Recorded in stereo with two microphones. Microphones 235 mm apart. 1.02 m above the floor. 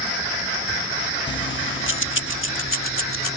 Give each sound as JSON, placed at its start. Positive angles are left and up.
{"t": 1.3, "sound": "keys jangling", "side_deg": 50}